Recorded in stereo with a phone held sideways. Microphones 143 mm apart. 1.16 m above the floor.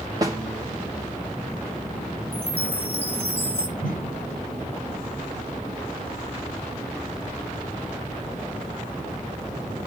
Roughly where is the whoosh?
Left.